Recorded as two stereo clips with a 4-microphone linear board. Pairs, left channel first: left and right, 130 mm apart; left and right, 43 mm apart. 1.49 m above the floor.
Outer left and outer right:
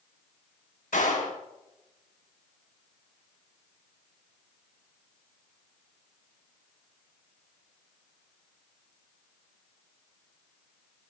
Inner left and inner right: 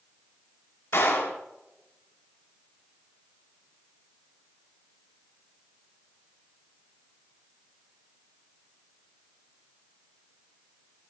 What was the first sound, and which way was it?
A clap, 75° left (ahead or behind).